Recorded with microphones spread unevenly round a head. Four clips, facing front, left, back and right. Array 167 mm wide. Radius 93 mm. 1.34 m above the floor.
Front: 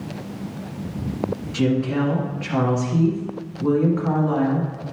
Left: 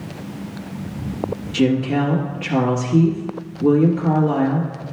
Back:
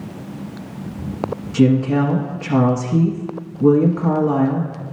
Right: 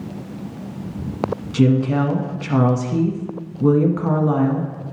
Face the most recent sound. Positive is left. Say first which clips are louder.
# right 1 dB, back 6 dB
turn(degrees=-140)